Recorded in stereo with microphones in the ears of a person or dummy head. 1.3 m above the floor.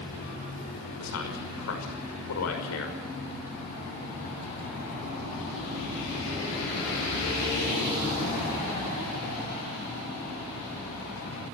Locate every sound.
1.0 s a man speaking: 80° left, 6 m